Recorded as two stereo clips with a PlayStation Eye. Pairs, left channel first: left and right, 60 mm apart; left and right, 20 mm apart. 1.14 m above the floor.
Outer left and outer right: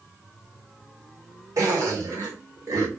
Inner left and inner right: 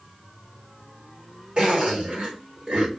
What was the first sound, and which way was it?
A zipper, 65° right (ahead or behind).